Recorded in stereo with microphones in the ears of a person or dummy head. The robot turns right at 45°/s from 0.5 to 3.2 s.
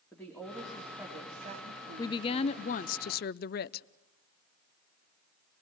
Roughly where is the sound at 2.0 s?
Ahead left.